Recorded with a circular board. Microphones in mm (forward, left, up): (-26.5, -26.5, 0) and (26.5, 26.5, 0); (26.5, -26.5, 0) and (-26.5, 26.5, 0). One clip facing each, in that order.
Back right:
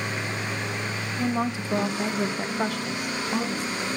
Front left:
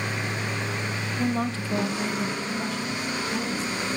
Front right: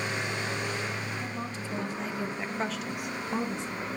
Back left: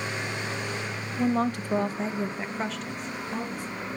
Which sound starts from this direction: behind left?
A woman speaking, at 1.2 s.